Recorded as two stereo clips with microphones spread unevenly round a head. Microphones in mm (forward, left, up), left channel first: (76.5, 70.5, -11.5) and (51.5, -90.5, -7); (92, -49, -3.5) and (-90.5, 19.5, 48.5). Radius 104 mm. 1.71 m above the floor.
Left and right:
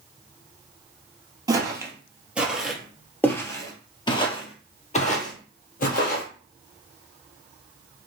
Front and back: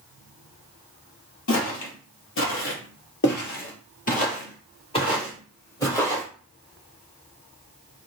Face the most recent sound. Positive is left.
turn(degrees=65)